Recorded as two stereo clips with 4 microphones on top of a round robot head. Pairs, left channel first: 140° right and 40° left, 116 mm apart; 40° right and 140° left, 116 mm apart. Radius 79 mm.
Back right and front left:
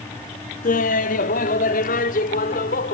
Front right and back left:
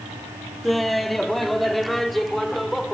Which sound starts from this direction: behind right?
Laughter, at 0.6 s.